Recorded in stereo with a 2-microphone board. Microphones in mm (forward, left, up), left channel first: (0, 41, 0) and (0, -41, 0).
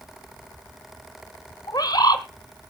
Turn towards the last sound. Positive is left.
turn(degrees=55)  # may be behind; listen again after turning